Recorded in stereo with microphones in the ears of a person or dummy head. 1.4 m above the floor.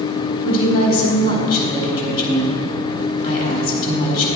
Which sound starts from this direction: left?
A woman speaking, at 0.4 s.